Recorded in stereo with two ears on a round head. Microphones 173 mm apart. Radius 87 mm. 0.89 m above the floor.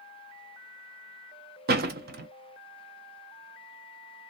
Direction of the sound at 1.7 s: 50° right (ahead or behind).